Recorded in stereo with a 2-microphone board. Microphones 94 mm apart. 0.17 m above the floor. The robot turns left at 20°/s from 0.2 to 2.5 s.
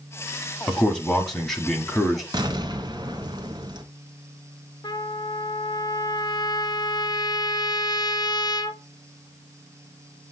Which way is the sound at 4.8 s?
50° left (ahead or behind).